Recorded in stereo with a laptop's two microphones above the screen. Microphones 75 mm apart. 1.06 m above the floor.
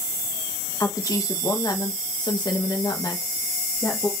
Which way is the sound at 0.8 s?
45° left (ahead or behind).